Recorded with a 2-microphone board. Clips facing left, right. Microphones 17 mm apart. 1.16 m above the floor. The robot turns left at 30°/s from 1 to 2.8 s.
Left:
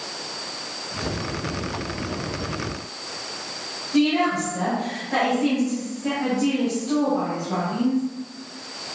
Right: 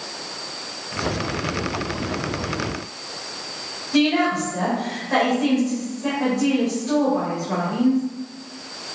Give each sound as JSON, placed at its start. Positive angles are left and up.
{"t": 3.9, "sound": "a woman speaking", "side_deg": -75, "distance_m": 2.0}